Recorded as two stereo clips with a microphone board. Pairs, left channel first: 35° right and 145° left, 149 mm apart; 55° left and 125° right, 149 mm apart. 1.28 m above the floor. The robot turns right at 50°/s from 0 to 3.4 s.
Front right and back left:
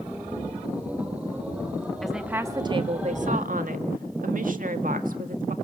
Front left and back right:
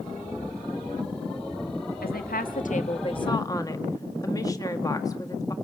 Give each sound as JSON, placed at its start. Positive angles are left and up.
{"t": 2.0, "sound": "a woman speaking", "azimuth_deg": 55, "distance_m": 1.7}